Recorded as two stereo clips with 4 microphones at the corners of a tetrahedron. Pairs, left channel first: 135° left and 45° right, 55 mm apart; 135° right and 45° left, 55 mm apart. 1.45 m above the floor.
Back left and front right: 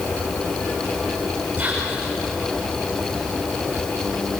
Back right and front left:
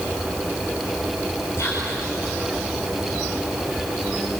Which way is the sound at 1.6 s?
110° right.